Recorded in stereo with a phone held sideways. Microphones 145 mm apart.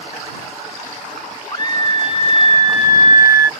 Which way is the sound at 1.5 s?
30° left (ahead or behind).